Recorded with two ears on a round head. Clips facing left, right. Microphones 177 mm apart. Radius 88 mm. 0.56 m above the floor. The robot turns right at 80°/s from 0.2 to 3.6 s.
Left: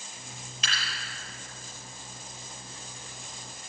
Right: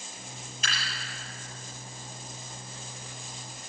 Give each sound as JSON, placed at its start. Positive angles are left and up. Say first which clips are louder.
{"t": 0.6, "sound": "dripping", "louder": "even", "side_deg": 60, "distance_m": 6.0}